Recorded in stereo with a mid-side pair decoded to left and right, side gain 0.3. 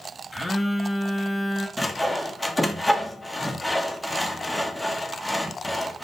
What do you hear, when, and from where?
0.3 s a phone buzzing: 15° left, 0.7 m
1.8 s sawing: 5° left, 0.7 m